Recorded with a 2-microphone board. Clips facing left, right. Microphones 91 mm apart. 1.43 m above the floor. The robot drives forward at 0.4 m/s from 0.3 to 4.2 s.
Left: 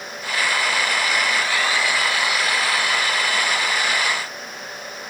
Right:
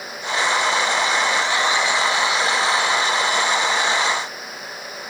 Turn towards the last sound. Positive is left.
No sound to turn to.